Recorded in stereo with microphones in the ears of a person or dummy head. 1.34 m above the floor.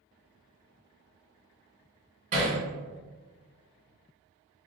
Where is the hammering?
45° right (ahead or behind), 1.6 m.